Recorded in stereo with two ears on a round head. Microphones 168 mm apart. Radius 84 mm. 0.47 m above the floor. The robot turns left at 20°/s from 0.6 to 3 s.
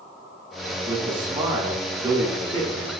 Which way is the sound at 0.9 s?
25° right (ahead or behind).